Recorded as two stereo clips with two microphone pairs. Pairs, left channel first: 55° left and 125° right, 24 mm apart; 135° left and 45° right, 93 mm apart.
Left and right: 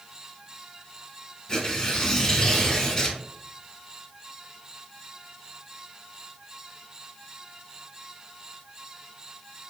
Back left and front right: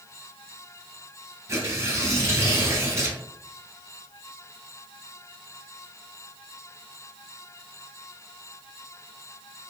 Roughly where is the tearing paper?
Ahead.